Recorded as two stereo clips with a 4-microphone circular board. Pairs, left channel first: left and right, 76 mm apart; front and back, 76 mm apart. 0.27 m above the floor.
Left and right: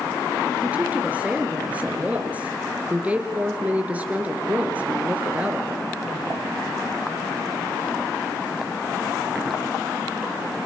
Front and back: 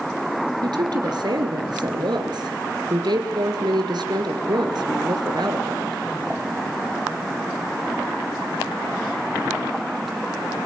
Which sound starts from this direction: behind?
A woman speaking, at 0.6 s.